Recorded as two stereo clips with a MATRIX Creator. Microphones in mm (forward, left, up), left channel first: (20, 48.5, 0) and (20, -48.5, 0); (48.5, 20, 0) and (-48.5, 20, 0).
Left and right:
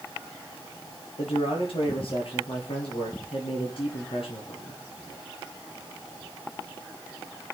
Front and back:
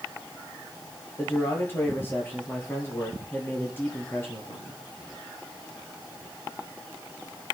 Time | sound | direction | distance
1.2 | a man speaking | 65° left | 6.5 m